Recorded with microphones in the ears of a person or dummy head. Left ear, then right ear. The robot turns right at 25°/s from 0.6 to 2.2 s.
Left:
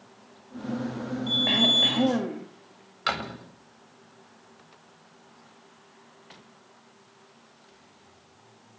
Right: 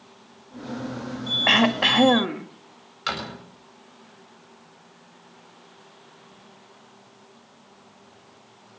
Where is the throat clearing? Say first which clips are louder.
Right 2 dB; 45° right (ahead or behind), 1.4 m; by 2.5 s 55° right (ahead or behind), 1.4 m.